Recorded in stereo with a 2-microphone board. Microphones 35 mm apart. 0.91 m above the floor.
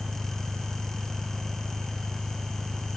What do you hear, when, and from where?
0.0 s an engine running: 85° right